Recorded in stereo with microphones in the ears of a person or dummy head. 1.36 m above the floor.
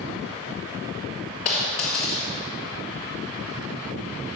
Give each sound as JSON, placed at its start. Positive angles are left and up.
{"t": 1.4, "sound": "a dropped coin", "side_deg": 40, "distance_m": 1.9}